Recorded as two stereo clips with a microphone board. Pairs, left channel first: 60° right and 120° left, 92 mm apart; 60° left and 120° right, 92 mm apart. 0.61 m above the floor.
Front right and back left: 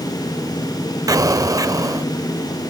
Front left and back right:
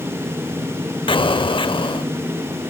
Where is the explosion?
75° left, 0.5 m.